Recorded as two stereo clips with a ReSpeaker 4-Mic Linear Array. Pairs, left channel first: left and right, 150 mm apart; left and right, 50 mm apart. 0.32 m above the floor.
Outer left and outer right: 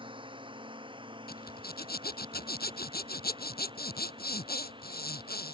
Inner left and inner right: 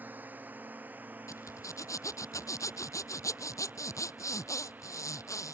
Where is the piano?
I don't hear a piano.